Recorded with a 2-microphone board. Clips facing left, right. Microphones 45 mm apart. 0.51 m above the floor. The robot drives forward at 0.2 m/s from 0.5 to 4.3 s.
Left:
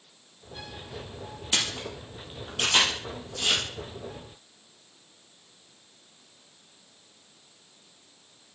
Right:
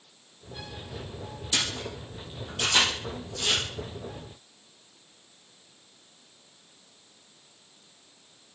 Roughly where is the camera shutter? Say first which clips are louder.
Left 1 dB; left.